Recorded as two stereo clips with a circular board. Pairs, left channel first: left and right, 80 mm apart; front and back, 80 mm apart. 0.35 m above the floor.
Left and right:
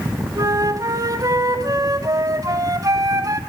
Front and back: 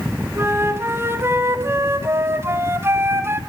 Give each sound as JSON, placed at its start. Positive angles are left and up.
{"t": 0.3, "sound": "a flute", "azimuth_deg": -125, "distance_m": 1.5}